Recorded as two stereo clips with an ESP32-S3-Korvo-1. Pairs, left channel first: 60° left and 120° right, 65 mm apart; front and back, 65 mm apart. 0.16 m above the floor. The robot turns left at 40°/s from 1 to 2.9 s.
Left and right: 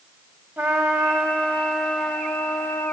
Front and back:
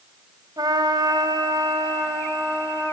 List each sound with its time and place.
0.6 s a trumpet: 175° right, 6 m; by 2.9 s 110° left, 6 m